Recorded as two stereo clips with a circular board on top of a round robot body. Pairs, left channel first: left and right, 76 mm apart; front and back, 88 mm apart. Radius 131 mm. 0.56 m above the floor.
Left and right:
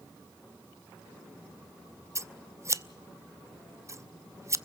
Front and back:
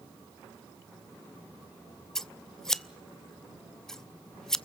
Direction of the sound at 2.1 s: 80° right.